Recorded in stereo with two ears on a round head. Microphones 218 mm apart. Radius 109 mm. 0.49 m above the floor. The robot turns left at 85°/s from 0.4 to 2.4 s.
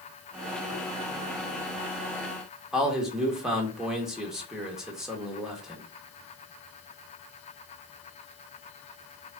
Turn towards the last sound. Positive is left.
turn(degrees=0)  # may be behind; listen again after turning